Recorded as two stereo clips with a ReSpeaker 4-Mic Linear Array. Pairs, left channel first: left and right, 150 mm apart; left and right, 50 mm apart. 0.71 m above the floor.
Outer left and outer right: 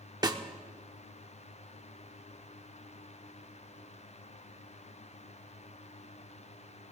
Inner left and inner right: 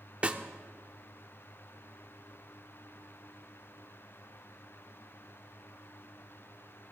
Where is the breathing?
I don't hear breathing.